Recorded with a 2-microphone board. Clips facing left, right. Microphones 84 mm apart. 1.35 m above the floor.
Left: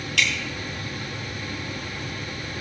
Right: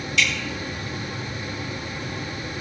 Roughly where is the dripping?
Left.